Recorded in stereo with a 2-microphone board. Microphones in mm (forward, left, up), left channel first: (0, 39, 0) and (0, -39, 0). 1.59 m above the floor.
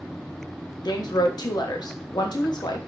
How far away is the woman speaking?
About 0.5 m.